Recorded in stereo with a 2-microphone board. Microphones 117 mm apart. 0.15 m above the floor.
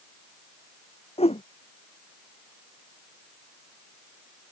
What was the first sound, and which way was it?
A whoosh, 60° left (ahead or behind).